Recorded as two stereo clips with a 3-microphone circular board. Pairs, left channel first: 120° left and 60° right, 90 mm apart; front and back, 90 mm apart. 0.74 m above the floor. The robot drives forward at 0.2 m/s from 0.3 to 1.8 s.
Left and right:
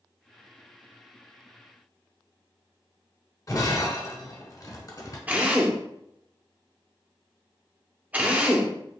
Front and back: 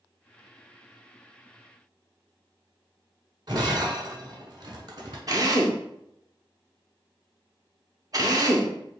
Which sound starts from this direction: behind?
Breaking glass, at 3.5 s.